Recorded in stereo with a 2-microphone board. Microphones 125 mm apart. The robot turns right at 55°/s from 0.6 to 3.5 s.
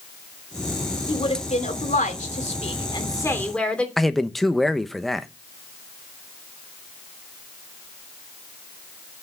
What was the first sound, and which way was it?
A woman speaking, 40° left.